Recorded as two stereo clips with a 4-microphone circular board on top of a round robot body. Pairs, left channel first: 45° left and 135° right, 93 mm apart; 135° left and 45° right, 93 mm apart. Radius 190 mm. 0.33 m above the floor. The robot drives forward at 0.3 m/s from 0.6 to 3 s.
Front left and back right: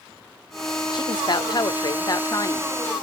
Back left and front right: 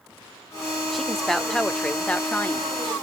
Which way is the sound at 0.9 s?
45° left.